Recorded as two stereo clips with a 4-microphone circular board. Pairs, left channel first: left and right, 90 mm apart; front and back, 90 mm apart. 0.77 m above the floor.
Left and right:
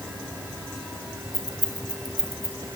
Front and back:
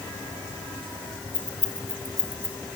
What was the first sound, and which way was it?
Keys jangling, 140° left.